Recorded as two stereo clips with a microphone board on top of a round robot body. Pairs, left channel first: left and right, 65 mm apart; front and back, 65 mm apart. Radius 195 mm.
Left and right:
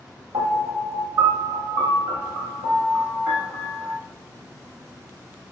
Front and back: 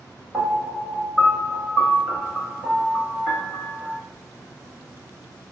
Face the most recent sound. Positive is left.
turn(degrees=-110)